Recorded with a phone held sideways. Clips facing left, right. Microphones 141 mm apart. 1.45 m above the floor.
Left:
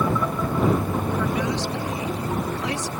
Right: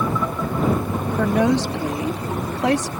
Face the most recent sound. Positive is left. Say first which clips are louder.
# right 6 dB
turn(degrees=-75)  # may be behind; listen again after turning